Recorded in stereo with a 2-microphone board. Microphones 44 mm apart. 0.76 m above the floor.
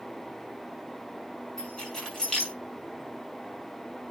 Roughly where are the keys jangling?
Centre.